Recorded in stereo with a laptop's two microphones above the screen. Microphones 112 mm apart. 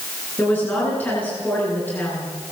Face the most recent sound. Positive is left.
turn(degrees=15)  # may be behind; listen again after turning